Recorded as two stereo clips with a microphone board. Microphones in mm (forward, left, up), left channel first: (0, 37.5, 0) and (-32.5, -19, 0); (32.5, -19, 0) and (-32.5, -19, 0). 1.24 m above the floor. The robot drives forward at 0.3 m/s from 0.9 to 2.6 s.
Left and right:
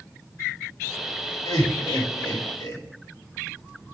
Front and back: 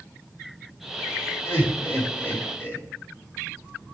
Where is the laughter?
50° left, 3 m; by 2.8 s 55° left, 3 m.